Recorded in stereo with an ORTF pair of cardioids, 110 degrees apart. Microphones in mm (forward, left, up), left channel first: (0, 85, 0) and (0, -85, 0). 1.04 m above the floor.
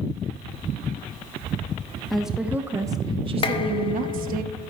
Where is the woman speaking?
Straight ahead, 1.1 m; by 4.4 s 70° right, 1.1 m.